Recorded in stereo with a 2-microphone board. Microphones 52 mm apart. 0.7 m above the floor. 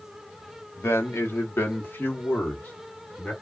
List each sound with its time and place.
0.8 s a man speaking: 60° left (ahead or behind), 1.0 m; by 3.3 s 25° left (ahead or behind), 1.6 m